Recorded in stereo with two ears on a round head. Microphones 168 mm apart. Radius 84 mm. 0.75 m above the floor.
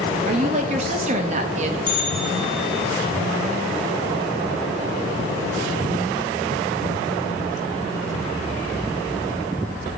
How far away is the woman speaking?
About 0.8 m.